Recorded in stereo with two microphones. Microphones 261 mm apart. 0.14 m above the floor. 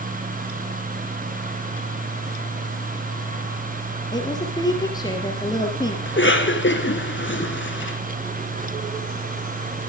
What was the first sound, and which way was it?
A woman speaking, 15° left (ahead or behind).